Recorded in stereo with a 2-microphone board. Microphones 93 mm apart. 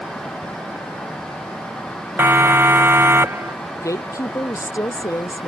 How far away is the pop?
I don't hear a pop.